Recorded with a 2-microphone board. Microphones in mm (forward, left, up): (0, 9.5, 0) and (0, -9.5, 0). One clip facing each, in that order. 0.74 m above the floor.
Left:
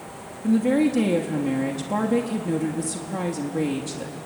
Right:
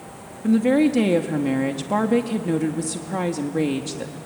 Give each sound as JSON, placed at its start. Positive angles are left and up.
{"t": 0.4, "sound": "a woman speaking", "side_deg": -15, "distance_m": 1.2}